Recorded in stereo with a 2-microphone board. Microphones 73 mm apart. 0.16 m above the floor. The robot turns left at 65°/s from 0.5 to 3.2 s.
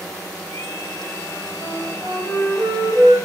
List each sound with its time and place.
1.6 s a flute: 10° left, 7 m; by 3.1 s 90° right, 7 m